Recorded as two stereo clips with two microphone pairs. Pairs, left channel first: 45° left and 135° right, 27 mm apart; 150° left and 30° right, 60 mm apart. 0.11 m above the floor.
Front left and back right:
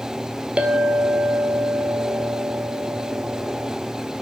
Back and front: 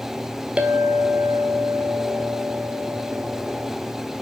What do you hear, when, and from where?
0.6 s a clink: 100° right, 1.4 m